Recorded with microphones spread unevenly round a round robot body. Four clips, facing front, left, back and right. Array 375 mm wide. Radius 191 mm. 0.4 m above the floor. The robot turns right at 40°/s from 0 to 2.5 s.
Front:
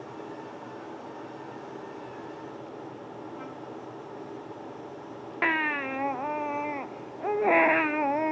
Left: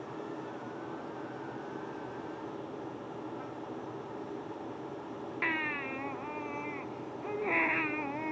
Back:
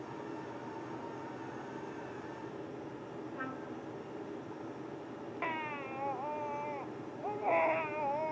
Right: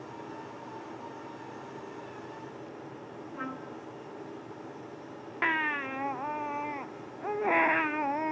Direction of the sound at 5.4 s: 10° right.